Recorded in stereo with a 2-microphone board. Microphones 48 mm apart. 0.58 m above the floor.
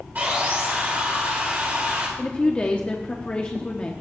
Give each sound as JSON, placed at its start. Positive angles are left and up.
{"t": 0.1, "sound": "sawing", "side_deg": -40, "distance_m": 3.0}
{"t": 2.2, "sound": "a woman speaking", "side_deg": 25, "distance_m": 0.7}